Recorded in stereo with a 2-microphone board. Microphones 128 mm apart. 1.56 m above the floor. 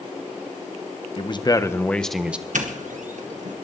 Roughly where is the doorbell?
Right.